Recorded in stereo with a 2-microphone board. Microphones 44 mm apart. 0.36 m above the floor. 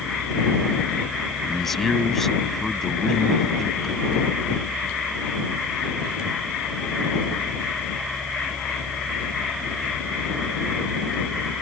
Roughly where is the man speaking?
Centre.